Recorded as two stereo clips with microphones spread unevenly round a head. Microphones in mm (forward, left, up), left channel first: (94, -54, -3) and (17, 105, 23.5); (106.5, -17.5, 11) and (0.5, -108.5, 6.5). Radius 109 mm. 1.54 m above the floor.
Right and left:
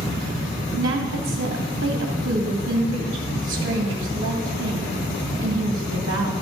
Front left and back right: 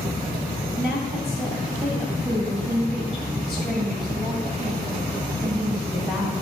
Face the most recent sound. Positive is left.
turn(degrees=130)